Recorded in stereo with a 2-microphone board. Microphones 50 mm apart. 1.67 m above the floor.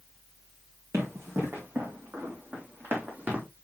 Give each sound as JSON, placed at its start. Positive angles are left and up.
{"t": 0.9, "sound": "running footsteps", "side_deg": -65, "distance_m": 4.0}